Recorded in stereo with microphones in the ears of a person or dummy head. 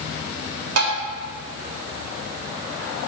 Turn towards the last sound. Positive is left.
turn(degrees=-80)